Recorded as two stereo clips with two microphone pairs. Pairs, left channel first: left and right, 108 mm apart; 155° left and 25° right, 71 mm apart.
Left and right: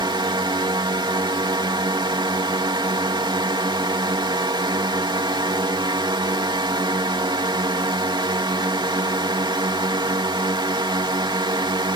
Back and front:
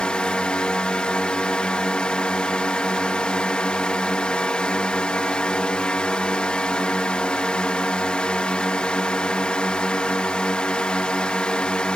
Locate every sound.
0.0 s a drone: 130° right